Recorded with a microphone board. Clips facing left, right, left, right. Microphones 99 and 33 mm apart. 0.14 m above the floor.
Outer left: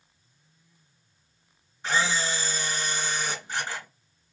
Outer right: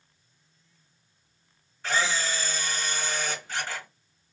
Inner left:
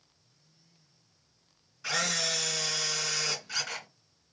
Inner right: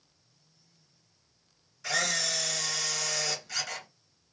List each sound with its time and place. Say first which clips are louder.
1.8 s a camera shutter: outer left 1 dB, inner right 1 dB; 20° left (ahead or behind), 2 m